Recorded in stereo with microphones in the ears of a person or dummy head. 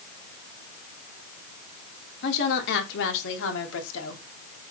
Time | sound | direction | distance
2.2 | a woman speaking | 65° left (ahead or behind) | 3 m